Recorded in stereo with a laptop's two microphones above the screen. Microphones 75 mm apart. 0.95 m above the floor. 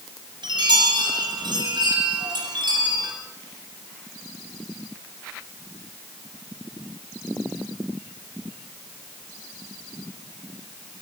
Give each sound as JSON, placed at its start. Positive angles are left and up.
{"t": 0.4, "sound": "a chime", "side_deg": -80, "distance_m": 8.0}